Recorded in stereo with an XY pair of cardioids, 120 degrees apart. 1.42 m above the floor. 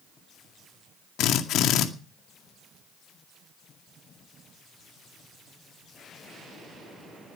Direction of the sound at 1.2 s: 70° left.